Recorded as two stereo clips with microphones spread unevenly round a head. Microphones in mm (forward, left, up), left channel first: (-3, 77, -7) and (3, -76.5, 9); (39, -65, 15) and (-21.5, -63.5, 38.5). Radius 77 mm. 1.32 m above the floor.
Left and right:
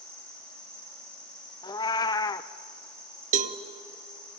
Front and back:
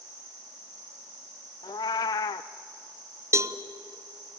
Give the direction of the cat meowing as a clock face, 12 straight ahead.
11 o'clock.